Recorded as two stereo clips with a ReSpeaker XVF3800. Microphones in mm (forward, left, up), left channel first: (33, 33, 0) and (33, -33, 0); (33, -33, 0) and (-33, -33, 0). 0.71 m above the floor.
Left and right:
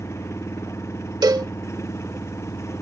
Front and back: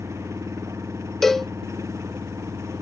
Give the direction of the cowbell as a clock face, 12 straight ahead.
3 o'clock.